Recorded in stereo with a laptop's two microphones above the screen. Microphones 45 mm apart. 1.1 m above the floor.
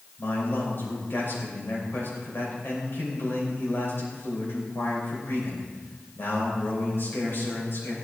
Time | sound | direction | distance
0.2 | a man speaking | 50° left (ahead or behind) | 6 m